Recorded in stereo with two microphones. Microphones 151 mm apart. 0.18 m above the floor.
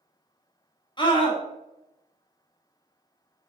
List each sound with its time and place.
1.0 s a scream: 30° left (ahead or behind), 1.2 m